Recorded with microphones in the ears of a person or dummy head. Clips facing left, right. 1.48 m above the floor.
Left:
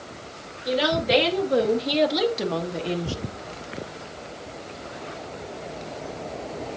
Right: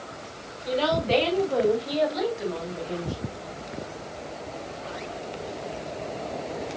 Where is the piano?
No piano in this recording.